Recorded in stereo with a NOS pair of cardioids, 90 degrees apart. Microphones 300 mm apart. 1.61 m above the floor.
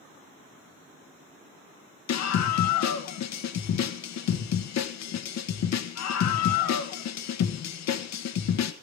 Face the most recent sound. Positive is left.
turn(degrees=65)